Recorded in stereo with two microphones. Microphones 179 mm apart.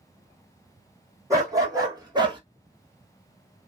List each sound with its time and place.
1.3 s a dog barking: 20° right (ahead or behind), 2.5 m; by 2.4 s 25° right (ahead or behind), 1.3 m